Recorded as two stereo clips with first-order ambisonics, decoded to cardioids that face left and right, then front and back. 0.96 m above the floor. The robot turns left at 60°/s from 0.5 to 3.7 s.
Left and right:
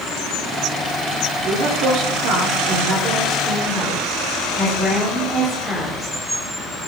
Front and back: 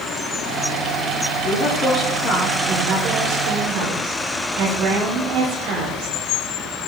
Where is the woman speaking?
50° right, 3 m; by 6.2 s 170° left, 3 m.